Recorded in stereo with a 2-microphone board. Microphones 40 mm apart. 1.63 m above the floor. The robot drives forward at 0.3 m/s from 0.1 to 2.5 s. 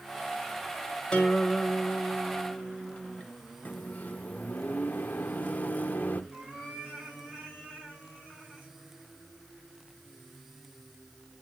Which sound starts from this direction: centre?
A guitar, at 1.1 s.